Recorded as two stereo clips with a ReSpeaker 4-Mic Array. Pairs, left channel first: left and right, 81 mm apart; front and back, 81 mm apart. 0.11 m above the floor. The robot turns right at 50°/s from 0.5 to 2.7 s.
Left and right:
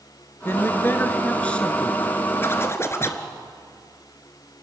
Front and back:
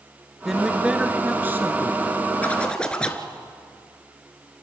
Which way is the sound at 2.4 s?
55° left.